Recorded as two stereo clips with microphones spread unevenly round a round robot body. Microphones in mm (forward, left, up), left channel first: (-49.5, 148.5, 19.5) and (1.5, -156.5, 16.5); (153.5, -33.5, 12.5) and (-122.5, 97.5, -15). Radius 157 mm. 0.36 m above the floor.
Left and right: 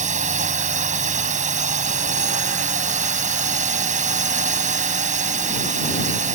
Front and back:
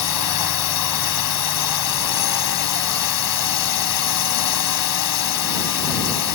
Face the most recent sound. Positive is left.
turn(degrees=-15)